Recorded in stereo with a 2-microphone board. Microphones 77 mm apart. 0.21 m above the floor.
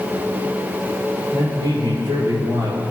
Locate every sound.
1.3 s a man speaking: 65° right (ahead or behind), 5 m; by 2.8 s 55° right (ahead or behind), 5.5 m